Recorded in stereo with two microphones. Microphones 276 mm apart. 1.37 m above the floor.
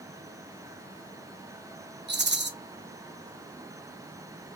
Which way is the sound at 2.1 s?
40° right (ahead or behind).